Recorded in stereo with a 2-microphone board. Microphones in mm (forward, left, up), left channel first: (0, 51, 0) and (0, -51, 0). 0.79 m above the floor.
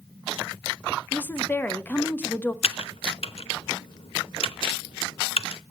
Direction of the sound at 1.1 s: 20° left (ahead or behind).